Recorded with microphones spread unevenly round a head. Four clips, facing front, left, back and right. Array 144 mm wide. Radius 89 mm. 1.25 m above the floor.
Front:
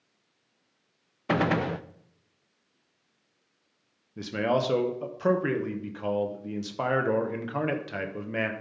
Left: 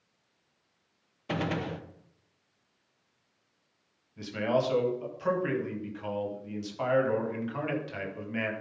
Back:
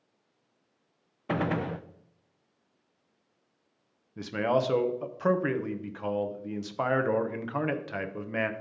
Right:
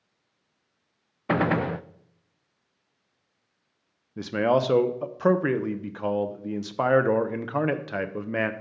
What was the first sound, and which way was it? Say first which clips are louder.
A gunshot: right 8 dB, front 4 dB; 40° right.